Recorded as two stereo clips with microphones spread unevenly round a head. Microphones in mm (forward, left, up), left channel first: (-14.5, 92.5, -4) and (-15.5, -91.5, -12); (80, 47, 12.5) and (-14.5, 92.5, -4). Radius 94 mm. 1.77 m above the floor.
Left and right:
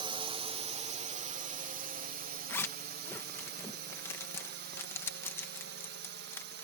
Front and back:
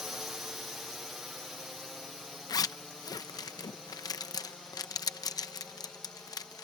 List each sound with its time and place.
0.0 s a drone: 130° right; by 6.6 s 115° right
2.5 s a zipper: 15° left